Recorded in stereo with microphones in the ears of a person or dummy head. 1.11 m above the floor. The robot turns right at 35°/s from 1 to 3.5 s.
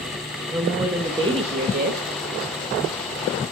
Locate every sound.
0.5 s a woman speaking: 160° right, 1.6 m; by 2.0 s 125° right, 1.6 m